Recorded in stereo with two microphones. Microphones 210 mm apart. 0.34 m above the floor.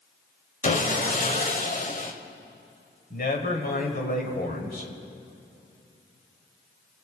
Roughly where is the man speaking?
Left.